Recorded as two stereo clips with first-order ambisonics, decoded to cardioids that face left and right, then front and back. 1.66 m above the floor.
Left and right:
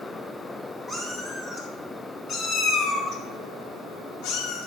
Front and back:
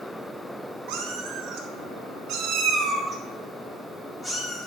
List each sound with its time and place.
0.9 s a cat meowing: 175° left, 3 m; by 4.7 s 70° left, 2.5 m